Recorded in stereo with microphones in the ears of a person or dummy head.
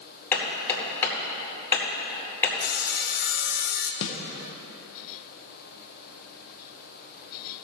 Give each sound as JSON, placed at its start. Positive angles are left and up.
{"t": 0.3, "sound": "hammering", "side_deg": 10, "distance_m": 2.0}
{"t": 2.6, "sound": "sawing", "side_deg": 55, "distance_m": 0.9}
{"t": 4.0, "sound": "a snare drum", "side_deg": 65, "distance_m": 0.9}